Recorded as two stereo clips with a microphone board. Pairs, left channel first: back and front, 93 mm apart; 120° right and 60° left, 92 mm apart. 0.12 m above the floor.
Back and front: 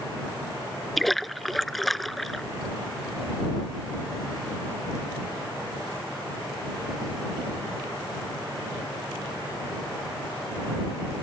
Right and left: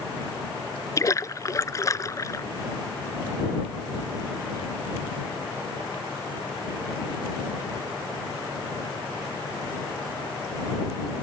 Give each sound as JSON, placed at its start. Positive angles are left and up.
{"t": 1.0, "sound": "a splash", "azimuth_deg": -90}